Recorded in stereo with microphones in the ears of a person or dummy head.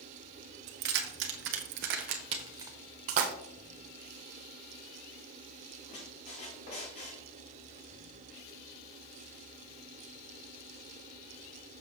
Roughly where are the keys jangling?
Right.